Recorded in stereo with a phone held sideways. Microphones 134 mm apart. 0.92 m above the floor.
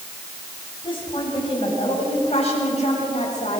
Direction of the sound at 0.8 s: 40° left (ahead or behind).